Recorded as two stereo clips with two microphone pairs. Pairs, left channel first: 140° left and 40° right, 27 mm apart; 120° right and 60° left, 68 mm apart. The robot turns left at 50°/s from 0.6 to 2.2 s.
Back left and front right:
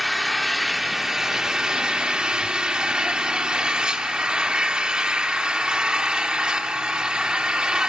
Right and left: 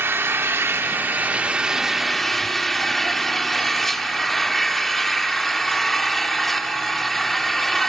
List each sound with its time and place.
0.0 s an engine running: 45° left, 0.8 m; by 7.9 s 35° right, 0.8 m